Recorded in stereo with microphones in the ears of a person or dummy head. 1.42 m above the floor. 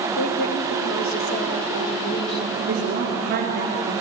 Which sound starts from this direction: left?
A woman speaking, at 0.2 s.